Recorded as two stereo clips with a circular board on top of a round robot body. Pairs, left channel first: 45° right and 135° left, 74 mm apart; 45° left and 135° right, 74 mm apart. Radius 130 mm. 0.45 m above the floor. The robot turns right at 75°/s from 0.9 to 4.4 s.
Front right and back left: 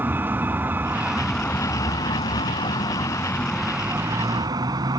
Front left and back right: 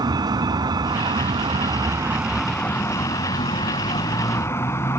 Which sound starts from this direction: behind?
A vehicle, at 0.0 s.